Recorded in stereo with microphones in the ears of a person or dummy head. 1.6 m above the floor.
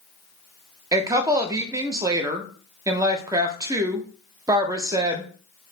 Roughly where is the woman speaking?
Right.